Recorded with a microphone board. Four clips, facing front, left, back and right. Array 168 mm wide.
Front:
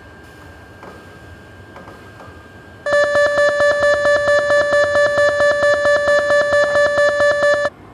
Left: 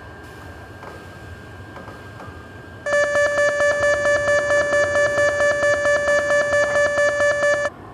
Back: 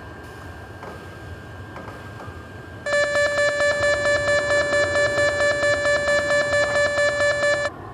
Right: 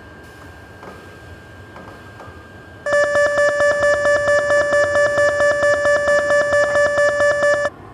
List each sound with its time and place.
0.0 s an aircraft: 140° left; by 7.9 s straight behind
2.9 s an alarm: 25° right